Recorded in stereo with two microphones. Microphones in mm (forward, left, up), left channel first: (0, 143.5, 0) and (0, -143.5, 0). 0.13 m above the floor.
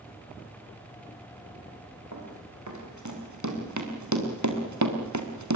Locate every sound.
2.1 s running footsteps: 70° right (ahead or behind), 7.5 m